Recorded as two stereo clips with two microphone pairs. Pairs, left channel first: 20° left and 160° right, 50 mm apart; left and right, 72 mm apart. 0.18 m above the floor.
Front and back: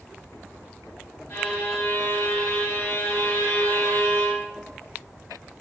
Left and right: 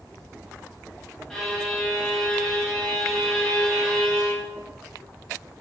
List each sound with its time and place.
1.3 s a violin: 10° left, 1.2 m